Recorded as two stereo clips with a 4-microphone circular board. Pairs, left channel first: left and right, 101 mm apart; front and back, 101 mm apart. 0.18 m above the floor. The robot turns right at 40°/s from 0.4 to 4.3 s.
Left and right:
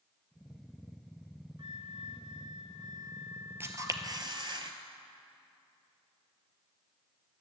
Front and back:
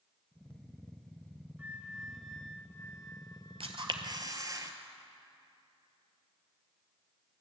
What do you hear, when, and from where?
1.6 s a flute: 110° right, 0.6 m; by 4.6 s straight ahead, 0.6 m
3.6 s a camera shutter: 155° right, 0.9 m; by 4.7 s 130° right, 0.9 m